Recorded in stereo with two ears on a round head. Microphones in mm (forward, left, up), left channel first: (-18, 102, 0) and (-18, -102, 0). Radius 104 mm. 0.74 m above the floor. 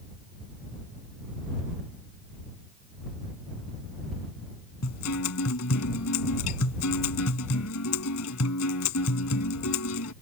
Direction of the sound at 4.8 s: 75° left (ahead or behind).